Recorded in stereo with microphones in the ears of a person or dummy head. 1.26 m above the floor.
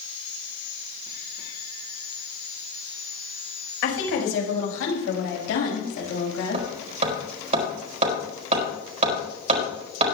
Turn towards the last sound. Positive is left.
turn(degrees=-45)  # may be behind; listen again after turning